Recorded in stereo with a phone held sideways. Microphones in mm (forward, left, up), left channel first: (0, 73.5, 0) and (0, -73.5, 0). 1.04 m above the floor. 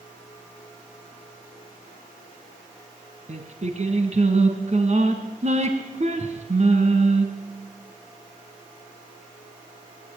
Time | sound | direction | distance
3.3 | singing | 50° right (ahead or behind) | 4 m